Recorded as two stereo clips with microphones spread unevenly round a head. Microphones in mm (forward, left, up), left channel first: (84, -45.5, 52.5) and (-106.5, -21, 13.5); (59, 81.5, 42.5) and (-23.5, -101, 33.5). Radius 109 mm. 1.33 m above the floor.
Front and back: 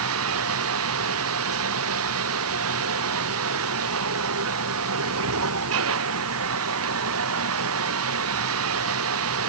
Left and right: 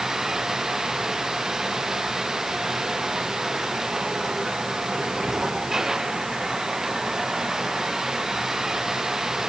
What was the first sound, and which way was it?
Running water, 160° left.